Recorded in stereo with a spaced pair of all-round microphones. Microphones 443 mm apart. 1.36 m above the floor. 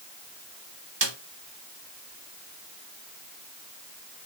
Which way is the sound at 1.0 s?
70° right (ahead or behind).